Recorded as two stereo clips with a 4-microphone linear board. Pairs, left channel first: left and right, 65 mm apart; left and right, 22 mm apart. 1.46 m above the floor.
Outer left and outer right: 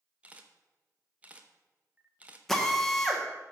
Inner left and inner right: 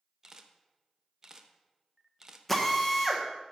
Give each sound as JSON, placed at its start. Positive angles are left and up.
{"t": 0.2, "sound": "a camera shutter", "side_deg": -20, "distance_m": 0.8}
{"t": 2.5, "sound": "a drill", "side_deg": 5, "distance_m": 1.3}